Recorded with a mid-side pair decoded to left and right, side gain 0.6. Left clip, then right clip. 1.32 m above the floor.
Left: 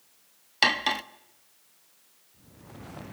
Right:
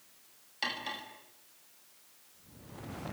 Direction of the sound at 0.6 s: 65° left.